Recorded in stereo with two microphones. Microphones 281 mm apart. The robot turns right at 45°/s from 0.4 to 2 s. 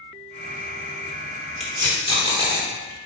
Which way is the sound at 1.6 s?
Centre (ahead or behind).